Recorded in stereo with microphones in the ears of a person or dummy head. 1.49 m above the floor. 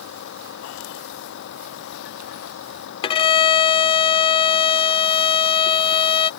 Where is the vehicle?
65° left (ahead or behind).